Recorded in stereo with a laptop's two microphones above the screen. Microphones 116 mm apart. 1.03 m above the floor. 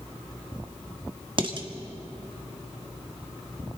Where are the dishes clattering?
45° right (ahead or behind), 1.3 m.